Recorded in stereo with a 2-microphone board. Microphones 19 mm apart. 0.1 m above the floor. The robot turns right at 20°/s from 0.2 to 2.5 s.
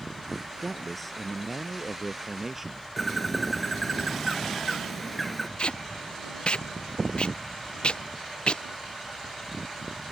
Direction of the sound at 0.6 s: 170° left.